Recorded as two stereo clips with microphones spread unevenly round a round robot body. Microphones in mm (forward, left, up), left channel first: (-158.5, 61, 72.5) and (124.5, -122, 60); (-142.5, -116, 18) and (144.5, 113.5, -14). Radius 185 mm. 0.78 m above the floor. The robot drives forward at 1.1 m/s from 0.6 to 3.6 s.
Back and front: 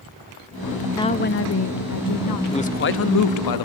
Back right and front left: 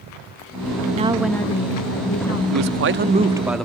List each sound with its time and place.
0.9 s a woman speaking: 70° left, 0.9 m; by 2.4 s 165° left, 1.7 m
2.5 s a man speaking: 70° left, 1.3 m; by 3.7 s 125° left, 1.5 m